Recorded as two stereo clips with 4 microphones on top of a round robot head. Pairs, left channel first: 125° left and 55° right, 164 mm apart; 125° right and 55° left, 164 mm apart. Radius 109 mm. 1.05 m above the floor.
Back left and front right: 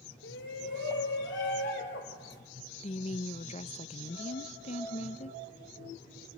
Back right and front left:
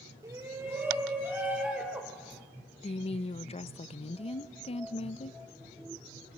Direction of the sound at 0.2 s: 125° left.